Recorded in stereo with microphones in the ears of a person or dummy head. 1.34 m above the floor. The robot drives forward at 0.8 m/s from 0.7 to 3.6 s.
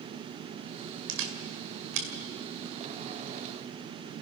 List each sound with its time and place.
1.1 s a camera shutter: 70° right (ahead or behind), 2 m; by 2.1 s 60° right (ahead or behind), 2.5 m